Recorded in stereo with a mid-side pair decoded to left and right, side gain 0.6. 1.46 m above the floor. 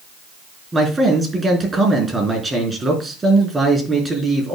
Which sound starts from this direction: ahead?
A man speaking, at 0.7 s.